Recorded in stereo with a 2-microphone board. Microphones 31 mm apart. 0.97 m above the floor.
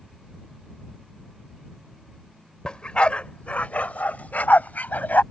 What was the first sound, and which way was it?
A dog barking, 30° left (ahead or behind).